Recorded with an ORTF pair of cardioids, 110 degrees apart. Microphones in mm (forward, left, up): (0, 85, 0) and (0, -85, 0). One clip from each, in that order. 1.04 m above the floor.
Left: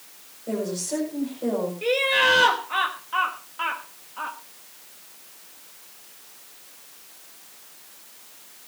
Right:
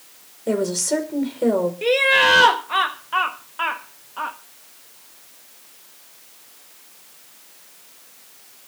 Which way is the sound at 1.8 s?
30° right.